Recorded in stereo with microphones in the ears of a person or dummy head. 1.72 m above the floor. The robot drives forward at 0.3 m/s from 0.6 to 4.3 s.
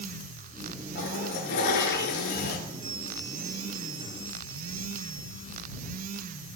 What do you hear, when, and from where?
0.9 s a toilet flushing: 60° left (ahead or behind), 4 m
2.7 s a bell: 35° right (ahead or behind), 5 m